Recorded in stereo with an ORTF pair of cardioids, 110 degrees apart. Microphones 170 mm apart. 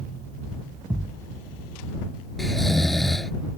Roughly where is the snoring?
Ahead.